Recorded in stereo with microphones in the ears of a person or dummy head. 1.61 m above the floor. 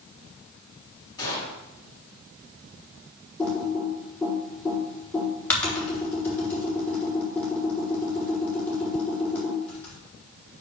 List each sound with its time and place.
1.2 s a gunshot: 25° left (ahead or behind), 4.5 m
3.4 s typing on a keyboard: 10° left (ahead or behind), 4 m